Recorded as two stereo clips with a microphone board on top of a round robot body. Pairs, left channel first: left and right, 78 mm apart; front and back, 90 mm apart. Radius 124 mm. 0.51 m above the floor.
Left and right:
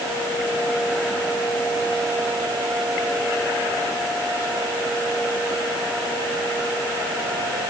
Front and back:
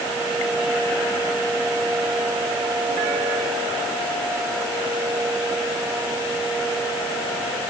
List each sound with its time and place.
Only background noise.